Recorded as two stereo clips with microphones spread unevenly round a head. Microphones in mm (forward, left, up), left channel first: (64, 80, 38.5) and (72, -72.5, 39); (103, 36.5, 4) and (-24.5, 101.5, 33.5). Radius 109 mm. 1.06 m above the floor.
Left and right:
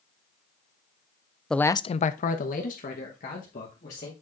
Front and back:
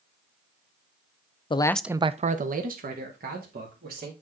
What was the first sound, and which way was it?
A man speaking, 10° left.